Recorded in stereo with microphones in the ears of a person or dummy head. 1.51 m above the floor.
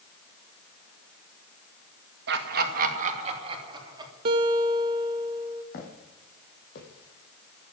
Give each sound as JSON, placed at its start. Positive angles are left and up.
{"t": 2.3, "sound": "laughter", "side_deg": -70, "distance_m": 2.0}
{"t": 4.2, "sound": "a guitar", "side_deg": -30, "distance_m": 0.9}
{"t": 5.7, "sound": "footsteps", "side_deg": 65, "distance_m": 4.0}